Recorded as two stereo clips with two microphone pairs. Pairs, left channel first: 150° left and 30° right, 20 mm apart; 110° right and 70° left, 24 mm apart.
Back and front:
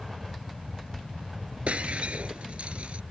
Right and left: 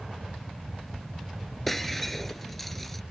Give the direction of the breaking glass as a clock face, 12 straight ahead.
1 o'clock.